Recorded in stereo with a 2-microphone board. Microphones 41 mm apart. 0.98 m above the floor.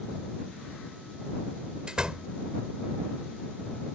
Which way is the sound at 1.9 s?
20° right (ahead or behind).